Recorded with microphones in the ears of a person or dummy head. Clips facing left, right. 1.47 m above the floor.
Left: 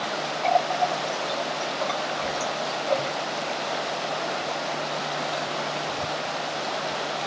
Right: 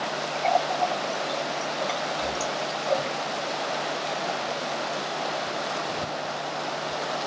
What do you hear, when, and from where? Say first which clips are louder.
0.4 s a running tap: left 1 dB; 10° right (ahead or behind), 0.6 m